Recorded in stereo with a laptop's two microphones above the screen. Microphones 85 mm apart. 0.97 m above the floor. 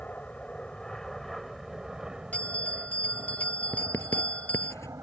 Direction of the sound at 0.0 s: 15° left (ahead or behind).